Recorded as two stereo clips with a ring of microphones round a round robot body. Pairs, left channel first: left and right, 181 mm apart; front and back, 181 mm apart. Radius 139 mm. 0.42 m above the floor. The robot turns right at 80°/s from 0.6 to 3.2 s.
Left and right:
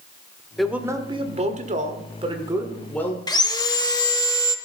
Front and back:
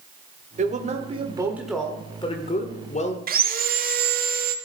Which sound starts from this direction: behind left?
Sawing, at 3.3 s.